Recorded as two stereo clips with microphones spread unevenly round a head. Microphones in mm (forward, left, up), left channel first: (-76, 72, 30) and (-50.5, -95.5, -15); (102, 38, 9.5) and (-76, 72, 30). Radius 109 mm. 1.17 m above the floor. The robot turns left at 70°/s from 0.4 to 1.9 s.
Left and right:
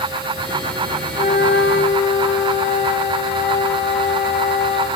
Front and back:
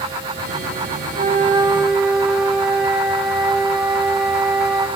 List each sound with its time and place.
1.1 s a flute: 135° left, 1.7 m; by 4.9 s 80° left, 1.7 m